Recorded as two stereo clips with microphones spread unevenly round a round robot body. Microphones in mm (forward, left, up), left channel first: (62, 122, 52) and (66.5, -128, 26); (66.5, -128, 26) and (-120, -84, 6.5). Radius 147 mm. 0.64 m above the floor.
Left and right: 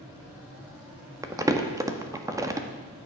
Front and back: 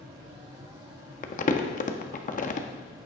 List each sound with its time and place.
1.2 s crumpling: 30° right, 1.3 m